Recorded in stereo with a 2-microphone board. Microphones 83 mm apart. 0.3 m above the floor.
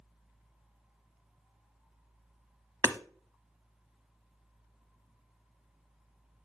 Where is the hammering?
35° right (ahead or behind), 0.7 m.